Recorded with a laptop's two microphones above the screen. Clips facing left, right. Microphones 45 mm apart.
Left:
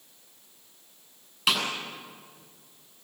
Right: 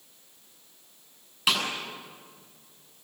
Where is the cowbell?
No cowbell in this recording.